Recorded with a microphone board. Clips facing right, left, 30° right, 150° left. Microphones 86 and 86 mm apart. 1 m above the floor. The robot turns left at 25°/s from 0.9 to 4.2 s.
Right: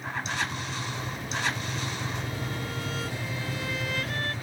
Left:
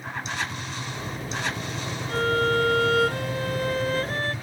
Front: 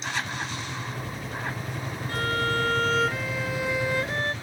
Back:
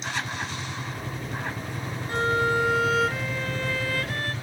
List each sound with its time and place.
2.1 s a violin: 85° left; by 4.3 s 35° left